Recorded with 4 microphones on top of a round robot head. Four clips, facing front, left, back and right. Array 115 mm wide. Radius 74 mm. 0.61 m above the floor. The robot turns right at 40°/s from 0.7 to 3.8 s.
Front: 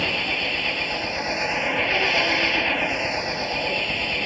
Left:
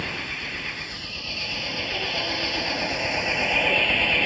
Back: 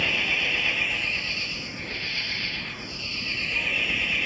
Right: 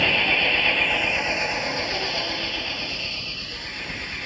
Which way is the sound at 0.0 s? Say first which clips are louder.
Right 10 dB, front 3 dB; 65° right.